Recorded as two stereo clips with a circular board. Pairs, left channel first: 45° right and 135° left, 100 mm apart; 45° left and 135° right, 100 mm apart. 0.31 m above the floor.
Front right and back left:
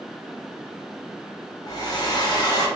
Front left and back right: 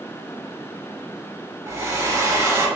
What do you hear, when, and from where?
1.7 s a hair dryer: 80° right, 0.8 m